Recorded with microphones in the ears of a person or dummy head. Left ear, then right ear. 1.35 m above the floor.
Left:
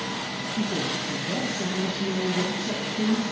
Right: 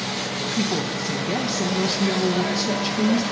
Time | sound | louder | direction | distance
0.6 | a woman speaking | even | 65° right (ahead or behind) | 1.1 m